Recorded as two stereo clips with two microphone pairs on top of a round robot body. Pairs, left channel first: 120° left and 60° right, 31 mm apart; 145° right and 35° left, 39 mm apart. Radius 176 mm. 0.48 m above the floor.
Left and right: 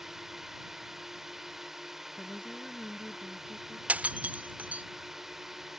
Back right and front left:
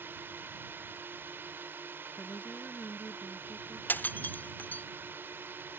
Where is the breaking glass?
105° right.